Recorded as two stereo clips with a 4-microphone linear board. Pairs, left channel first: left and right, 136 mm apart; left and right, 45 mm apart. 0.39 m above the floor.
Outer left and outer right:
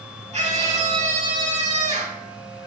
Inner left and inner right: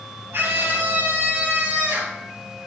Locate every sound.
0.3 s a scream: 60° right (ahead or behind), 3.5 m; by 2.2 s 55° right (ahead or behind), 4.5 m